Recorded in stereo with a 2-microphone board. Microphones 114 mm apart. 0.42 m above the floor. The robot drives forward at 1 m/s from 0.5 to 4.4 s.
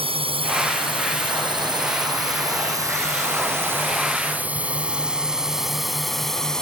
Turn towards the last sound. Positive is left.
turn(degrees=5)  # may be behind; listen again after turning